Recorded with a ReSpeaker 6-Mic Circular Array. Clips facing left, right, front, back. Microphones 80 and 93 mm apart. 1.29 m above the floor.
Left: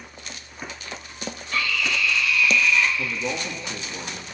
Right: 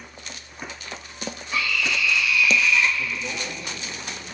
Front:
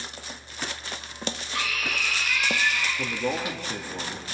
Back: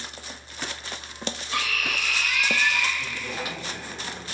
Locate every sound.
1.5 s a scream: 170° right, 6 m
3.0 s a man speaking: 35° left, 2.5 m